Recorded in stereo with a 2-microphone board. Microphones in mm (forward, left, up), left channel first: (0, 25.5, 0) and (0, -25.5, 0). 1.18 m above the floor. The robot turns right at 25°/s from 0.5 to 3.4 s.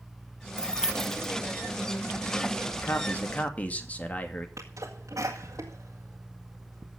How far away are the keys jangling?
About 0.8 m.